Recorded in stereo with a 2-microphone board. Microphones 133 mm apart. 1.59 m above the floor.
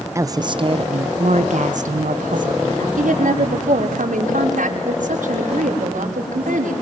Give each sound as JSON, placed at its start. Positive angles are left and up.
{"t": 0.1, "sound": "a woman speaking", "side_deg": -20, "distance_m": 0.9}
{"t": 3.0, "sound": "a woman speaking", "side_deg": -85, "distance_m": 6.0}